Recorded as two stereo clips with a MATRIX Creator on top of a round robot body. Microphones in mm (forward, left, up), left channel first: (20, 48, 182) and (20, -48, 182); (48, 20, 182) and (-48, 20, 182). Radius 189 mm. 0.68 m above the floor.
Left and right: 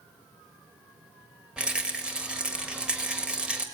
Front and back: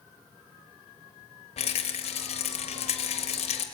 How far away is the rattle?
About 1.2 m.